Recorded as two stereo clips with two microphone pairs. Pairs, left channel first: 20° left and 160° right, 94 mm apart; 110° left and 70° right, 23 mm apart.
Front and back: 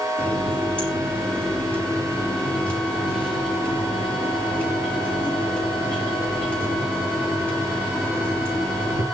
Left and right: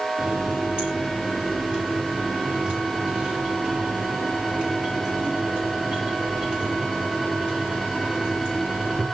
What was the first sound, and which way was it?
A running tap, 55° right.